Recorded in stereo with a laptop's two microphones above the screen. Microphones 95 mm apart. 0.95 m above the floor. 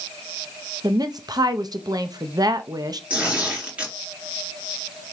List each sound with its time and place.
0.8 s a woman speaking: 45° right (ahead or behind), 0.8 m
3.1 s tearing paper: 15° right (ahead or behind), 3 m